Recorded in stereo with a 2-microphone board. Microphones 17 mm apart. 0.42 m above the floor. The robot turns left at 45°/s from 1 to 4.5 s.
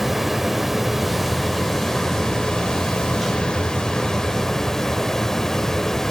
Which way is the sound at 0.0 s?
175° right.